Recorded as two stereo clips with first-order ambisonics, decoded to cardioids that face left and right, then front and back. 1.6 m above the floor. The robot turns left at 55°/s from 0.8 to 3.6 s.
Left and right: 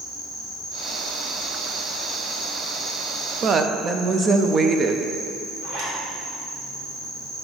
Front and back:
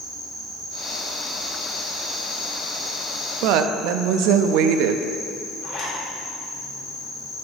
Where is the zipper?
50° right, 1.9 m.